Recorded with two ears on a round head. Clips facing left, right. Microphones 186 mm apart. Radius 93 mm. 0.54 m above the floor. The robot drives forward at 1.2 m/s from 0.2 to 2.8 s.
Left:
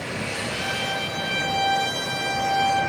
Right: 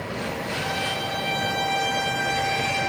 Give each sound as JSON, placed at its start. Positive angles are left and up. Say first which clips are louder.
{"t": 0.5, "sound": "a trumpet", "louder": "right 1 dB", "side_deg": 60, "distance_m": 4.0}